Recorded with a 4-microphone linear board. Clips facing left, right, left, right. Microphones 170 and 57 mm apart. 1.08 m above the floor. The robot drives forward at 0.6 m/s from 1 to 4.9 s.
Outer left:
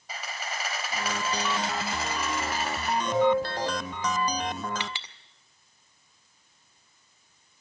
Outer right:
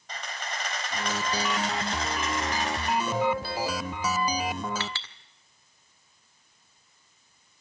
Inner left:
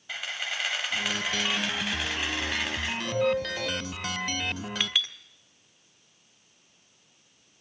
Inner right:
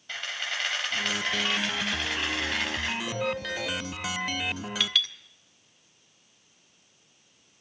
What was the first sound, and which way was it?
A camera shutter, 5° left (ahead or behind).